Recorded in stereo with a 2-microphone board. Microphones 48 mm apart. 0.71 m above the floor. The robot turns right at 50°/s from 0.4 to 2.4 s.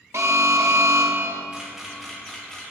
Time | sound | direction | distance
0.1 | an alarm | 100° right | 0.8 m
1.5 | a camera shutter | 20° right (ahead or behind) | 1.7 m